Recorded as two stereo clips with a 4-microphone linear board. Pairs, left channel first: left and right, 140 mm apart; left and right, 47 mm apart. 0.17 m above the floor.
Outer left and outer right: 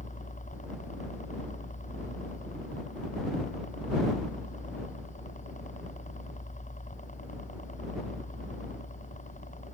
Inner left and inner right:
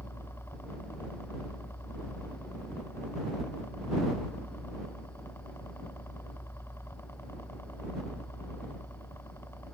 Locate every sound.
0.0 s a helicopter: 65° left (ahead or behind)